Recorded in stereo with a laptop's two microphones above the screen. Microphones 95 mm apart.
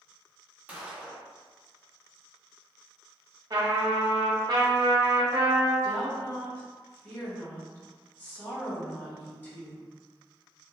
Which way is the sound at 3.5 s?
40° right (ahead or behind).